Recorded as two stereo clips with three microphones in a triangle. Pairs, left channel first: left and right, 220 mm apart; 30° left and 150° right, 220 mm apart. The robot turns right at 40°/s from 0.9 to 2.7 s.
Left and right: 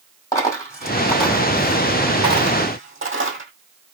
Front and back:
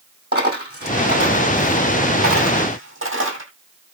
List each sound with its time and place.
0.3 s a dropped coin: 165° left, 2 m; by 3.5 s 120° right, 2 m